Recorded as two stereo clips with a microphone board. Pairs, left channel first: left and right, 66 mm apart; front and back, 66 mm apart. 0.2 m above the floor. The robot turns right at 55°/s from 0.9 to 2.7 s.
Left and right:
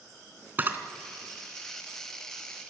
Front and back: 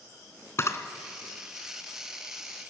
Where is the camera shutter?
35° right, 1.7 m.